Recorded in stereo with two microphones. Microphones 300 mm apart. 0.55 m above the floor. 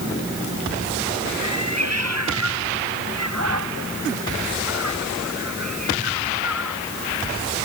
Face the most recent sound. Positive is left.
turn(degrees=-70)  # may be behind; listen again after turning